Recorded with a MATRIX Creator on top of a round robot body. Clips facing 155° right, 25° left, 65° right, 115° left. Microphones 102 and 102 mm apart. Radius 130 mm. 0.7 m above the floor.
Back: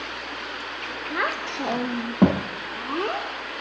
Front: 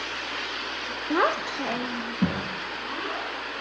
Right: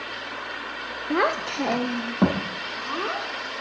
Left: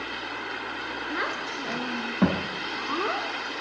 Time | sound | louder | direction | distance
1.1 | a child speaking | front 4 dB, right 10 dB | 30° right | 0.9 m